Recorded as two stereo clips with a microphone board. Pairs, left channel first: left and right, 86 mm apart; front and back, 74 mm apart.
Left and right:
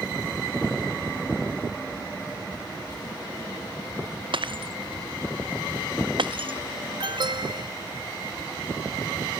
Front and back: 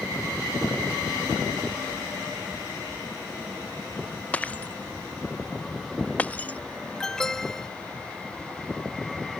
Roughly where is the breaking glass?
Right.